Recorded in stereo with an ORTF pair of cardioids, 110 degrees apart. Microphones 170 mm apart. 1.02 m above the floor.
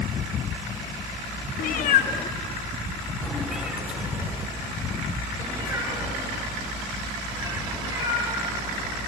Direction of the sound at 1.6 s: 65° left.